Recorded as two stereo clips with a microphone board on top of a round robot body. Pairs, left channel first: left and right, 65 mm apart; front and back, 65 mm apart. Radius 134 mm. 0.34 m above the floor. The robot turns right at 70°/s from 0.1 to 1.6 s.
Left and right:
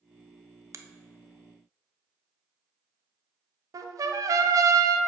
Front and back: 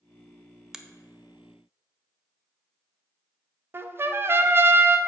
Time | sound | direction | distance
0.7 | a finger snap | 100° right | 0.8 m
3.7 | a trumpet | 125° right | 0.6 m